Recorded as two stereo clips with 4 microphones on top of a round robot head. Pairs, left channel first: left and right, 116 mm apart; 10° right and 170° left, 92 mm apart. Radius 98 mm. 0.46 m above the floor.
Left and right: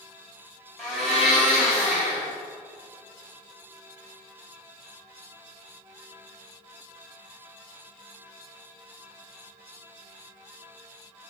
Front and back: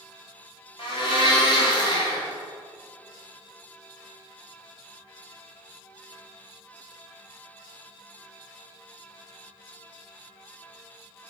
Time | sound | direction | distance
0.8 | a blender | 5° left | 1.9 m